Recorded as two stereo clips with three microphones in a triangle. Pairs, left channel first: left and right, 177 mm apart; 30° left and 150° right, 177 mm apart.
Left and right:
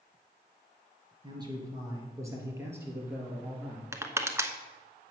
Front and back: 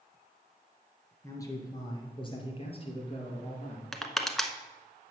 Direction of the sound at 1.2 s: 35° right.